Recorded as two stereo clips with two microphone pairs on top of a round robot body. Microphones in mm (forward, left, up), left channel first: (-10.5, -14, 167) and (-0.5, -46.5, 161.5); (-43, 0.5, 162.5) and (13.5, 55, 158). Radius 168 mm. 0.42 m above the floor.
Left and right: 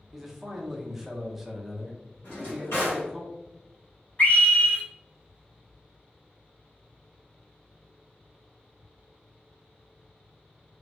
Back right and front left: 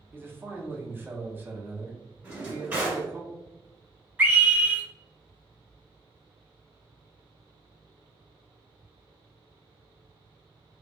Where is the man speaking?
5° right, 1.0 m.